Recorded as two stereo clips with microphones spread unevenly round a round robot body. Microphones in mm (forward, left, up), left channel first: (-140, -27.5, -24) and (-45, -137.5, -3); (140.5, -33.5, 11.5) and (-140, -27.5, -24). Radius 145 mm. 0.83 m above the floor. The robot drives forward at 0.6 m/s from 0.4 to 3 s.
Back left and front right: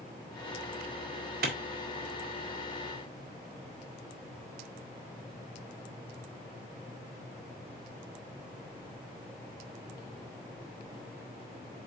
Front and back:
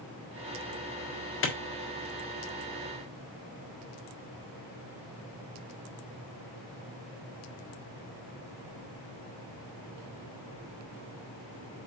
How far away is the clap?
About 1.7 m.